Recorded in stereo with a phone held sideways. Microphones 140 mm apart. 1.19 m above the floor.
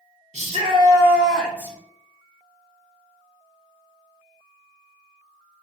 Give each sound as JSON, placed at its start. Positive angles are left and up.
{"t": 0.3, "sound": "a shout", "side_deg": -55, "distance_m": 0.8}